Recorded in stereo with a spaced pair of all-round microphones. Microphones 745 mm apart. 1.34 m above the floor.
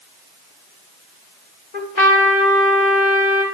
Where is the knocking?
No knocking in this recording.